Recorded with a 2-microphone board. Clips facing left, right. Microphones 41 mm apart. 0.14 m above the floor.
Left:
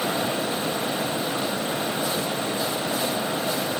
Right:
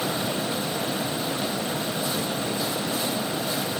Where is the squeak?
I don't hear a squeak.